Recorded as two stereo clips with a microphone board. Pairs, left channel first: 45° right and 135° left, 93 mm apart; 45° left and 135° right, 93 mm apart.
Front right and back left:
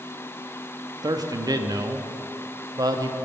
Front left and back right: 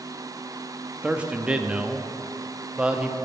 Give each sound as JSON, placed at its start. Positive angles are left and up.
{"t": 1.0, "sound": "a man speaking", "azimuth_deg": 150, "distance_m": 0.6}